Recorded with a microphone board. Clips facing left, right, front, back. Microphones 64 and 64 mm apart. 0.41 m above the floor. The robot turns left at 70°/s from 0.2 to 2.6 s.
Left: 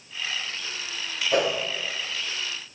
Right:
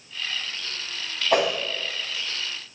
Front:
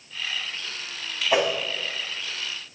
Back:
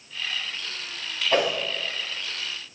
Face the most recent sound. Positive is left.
turn(degrees=-165)